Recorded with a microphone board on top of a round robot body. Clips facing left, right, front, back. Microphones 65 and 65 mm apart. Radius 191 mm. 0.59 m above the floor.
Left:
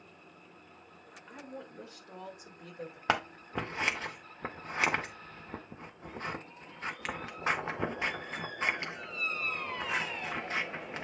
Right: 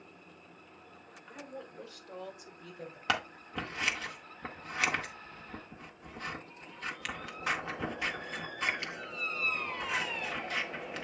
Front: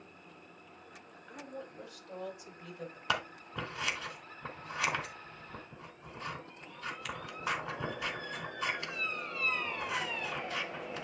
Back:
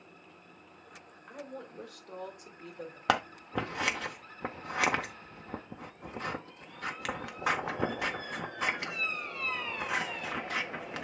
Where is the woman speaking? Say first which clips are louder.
Even, back 2 dB; 160° left, 4 m; by 3.0 s 130° left, 3.5 m.